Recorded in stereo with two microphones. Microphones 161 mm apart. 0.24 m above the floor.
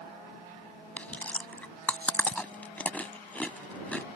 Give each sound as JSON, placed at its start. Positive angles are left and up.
{"t": 1.0, "sound": "chewing", "side_deg": 10}